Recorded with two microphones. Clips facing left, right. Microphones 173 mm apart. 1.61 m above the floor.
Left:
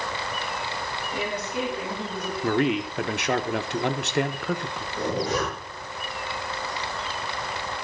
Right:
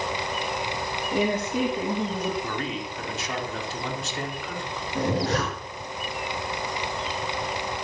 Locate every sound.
1.1 s a woman speaking: 55° right (ahead or behind), 2.5 m; by 2.3 s 30° right (ahead or behind), 3.5 m
2.4 s a man speaking: 70° left (ahead or behind), 1.2 m
5.0 s a zipper: 70° right (ahead or behind), 6 m